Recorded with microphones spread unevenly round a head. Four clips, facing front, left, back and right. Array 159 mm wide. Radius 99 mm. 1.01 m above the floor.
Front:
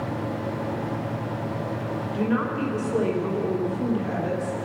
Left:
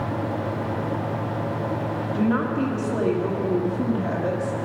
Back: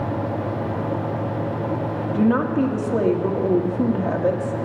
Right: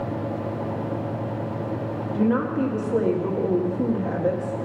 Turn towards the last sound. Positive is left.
turn(degrees=170)